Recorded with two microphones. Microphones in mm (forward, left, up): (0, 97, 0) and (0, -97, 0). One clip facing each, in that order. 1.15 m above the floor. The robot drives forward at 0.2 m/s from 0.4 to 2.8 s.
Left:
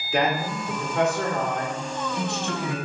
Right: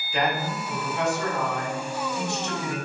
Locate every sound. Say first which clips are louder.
0.1 s a man speaking: left 2 dB; 75° left (ahead or behind), 2.5 m; by 2.8 s 65° left (ahead or behind), 3 m